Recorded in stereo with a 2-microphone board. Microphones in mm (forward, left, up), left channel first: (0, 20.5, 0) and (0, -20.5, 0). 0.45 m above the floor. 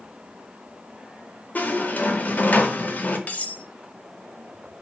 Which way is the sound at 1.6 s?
45° left (ahead or behind).